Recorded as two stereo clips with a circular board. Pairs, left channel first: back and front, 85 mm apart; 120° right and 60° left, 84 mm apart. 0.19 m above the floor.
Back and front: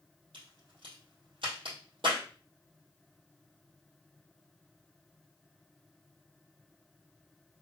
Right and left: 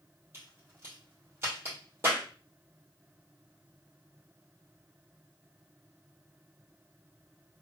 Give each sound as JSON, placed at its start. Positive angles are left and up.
{"t": 0.3, "sound": "a crack", "azimuth_deg": 0, "distance_m": 3.0}